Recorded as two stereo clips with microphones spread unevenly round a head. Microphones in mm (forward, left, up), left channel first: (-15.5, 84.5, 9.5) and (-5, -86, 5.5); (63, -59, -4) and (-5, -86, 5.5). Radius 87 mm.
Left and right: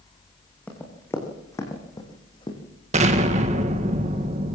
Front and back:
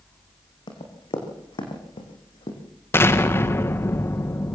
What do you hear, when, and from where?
0.7 s running footsteps: 10° left, 4.5 m; by 2.6 s 30° left, 4 m
2.9 s an explosion: 35° right, 1.7 m